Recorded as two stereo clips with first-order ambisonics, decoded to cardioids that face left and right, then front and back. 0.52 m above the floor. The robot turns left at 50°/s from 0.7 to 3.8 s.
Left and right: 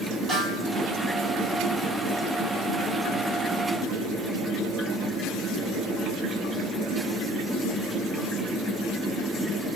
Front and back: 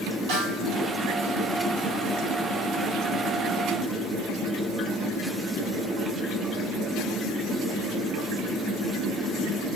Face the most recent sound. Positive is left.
turn(degrees=45)